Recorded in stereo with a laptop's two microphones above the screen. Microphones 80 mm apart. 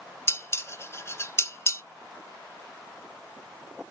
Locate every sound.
0.3 s dishes clattering: 35° left (ahead or behind), 0.5 m